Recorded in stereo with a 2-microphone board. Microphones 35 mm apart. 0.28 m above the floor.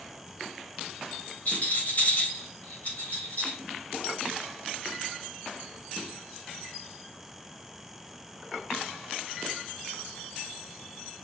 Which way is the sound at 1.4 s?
45° left (ahead or behind).